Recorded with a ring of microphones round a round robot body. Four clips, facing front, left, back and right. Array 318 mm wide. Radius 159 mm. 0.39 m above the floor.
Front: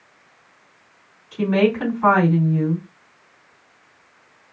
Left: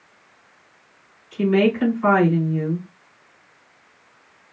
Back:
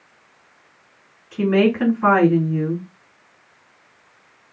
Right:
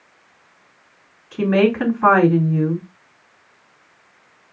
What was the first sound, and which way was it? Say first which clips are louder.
A woman speaking: right 2 dB, back 1 dB; 110° right.